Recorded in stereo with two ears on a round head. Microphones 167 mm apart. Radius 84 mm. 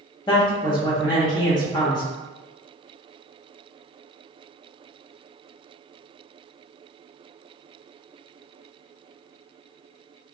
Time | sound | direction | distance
0.3 | a man speaking | 25° left (ahead or behind) | 1.1 m